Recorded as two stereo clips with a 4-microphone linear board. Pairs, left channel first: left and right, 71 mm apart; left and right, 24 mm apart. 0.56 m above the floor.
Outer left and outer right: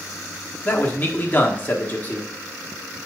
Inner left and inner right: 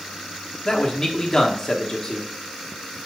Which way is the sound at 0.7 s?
25° left (ahead or behind).